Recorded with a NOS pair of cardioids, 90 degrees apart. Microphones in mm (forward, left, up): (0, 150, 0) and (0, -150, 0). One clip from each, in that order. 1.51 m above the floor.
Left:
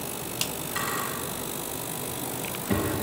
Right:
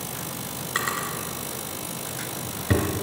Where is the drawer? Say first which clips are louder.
Right 3 dB; 70° right, 3.5 m.